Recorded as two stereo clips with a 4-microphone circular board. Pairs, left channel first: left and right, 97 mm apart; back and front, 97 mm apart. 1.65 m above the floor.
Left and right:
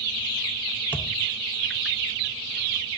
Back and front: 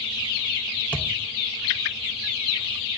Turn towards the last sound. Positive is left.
turn(degrees=130)